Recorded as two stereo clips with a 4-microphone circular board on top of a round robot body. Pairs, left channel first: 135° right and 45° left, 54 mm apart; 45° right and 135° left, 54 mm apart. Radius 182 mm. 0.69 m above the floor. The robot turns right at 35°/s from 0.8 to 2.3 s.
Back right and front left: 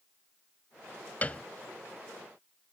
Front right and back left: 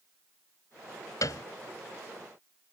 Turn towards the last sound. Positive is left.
turn(degrees=-35)